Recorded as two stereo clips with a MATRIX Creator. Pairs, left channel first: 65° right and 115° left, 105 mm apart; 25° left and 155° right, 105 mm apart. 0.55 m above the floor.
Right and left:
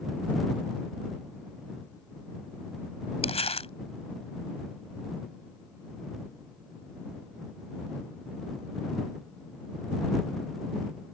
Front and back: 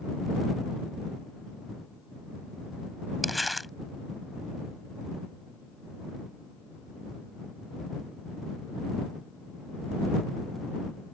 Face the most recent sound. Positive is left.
turn(degrees=-70)